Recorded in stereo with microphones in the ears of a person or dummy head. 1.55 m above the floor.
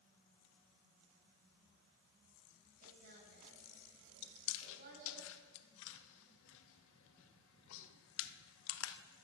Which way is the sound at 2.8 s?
45° right (ahead or behind).